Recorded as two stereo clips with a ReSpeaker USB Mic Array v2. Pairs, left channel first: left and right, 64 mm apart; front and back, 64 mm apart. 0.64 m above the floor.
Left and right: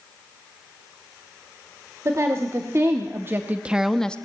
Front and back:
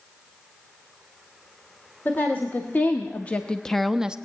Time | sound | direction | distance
2.0 | a woman speaking | 60° right | 1.7 m